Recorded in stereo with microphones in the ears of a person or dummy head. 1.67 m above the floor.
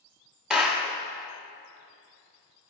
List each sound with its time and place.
0.5 s a clap: centre (ahead or behind), 0.7 m